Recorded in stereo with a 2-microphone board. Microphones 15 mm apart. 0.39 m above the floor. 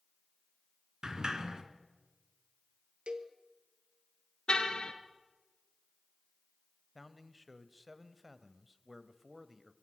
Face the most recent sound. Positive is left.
turn(degrees=-10)  # may be behind; listen again after turning